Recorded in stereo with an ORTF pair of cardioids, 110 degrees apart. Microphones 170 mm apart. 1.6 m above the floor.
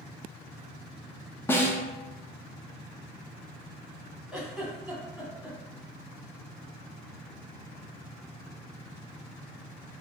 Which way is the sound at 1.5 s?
10° left.